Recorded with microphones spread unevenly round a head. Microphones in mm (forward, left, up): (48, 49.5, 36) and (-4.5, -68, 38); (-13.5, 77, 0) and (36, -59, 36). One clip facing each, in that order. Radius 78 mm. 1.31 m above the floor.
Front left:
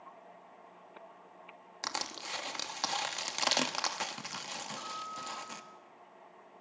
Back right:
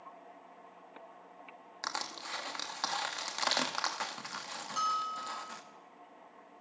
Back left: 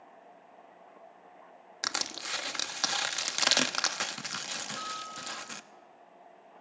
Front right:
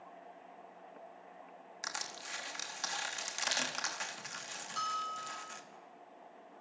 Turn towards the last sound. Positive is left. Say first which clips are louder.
# back right 7 dB, front right 1 dB
turn(degrees=-110)